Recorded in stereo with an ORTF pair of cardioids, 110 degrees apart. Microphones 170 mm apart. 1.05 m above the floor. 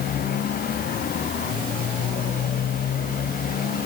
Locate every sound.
0.0 s a motorcycle: 60° left; by 3.9 s 55° left